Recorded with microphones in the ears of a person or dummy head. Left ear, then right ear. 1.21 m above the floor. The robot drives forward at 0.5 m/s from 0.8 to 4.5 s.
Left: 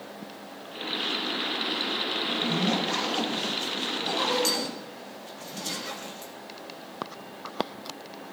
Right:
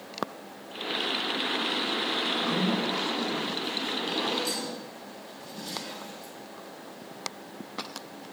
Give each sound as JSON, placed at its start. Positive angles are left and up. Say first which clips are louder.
{"t": 2.2, "sound": "a zipper", "louder": "even", "side_deg": 85, "distance_m": 1.5}